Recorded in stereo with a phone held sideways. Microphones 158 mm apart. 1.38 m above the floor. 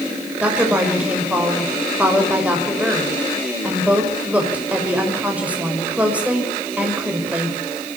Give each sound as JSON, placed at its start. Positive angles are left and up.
{"t": 0.4, "sound": "a woman speaking", "side_deg": -10, "distance_m": 6.5}